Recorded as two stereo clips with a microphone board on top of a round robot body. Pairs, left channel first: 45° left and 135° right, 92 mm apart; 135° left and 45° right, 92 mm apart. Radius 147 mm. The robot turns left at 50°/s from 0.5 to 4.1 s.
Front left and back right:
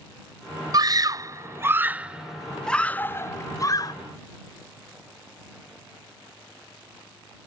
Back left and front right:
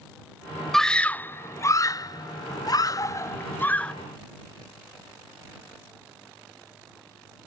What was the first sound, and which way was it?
A scream, 140° right.